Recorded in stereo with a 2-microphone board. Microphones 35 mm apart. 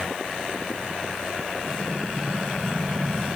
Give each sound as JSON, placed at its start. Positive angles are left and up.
{"t": 1.7, "sound": "an explosion", "side_deg": -85, "distance_m": 5.5}